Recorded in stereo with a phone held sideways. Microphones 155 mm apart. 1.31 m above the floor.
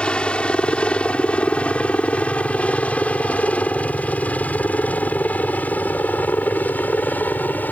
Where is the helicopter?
5° left (ahead or behind); by 7.7 s 10° left (ahead or behind).